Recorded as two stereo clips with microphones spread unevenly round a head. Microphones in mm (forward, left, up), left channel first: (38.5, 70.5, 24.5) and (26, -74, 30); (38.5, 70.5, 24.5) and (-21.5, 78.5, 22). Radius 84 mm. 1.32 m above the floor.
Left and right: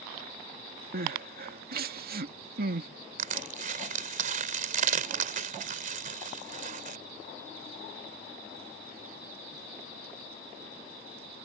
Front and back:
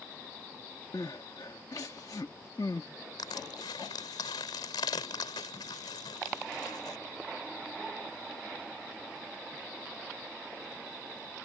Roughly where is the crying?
Right.